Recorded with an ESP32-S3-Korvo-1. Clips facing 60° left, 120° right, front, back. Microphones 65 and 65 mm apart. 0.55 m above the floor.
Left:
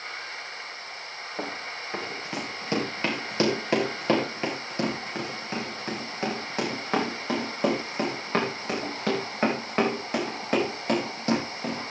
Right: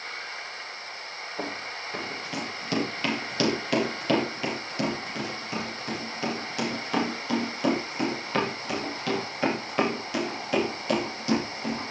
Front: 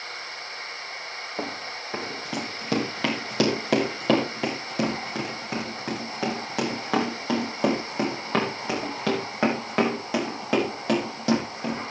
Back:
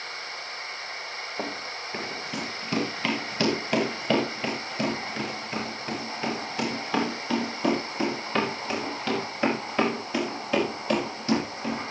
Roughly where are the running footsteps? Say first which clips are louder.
Even, front 1 dB; ahead.